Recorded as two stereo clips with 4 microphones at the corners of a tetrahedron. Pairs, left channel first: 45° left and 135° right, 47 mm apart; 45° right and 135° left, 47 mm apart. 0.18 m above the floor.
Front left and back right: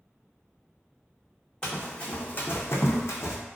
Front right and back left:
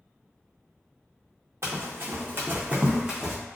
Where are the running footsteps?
120° left, 0.8 m; by 3.4 s 45° left, 0.7 m.